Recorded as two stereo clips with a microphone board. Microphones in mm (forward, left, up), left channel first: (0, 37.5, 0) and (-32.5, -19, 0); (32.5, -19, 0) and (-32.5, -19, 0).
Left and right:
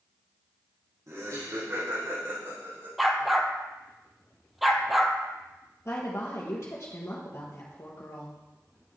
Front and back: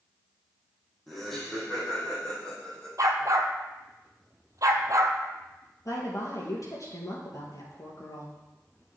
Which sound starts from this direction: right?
Laughter, at 1.1 s.